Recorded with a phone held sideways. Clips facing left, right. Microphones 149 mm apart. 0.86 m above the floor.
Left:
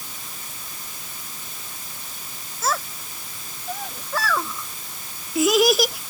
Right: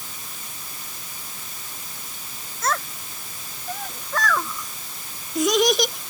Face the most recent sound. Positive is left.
turn(degrees=5)  # may be behind; listen again after turning